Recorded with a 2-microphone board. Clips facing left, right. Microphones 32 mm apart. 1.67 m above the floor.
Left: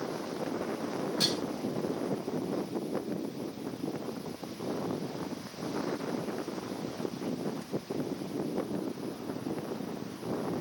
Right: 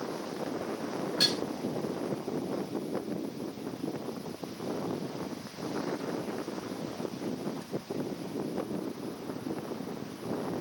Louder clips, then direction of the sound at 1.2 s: Right 3 dB; 60° right (ahead or behind).